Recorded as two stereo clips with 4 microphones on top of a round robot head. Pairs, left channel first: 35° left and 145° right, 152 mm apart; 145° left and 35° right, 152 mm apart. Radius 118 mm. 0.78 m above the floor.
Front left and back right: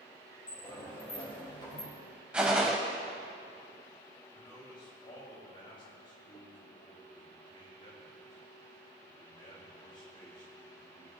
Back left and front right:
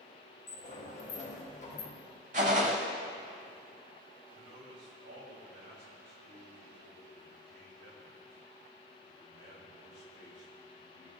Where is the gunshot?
65° right, 0.6 m.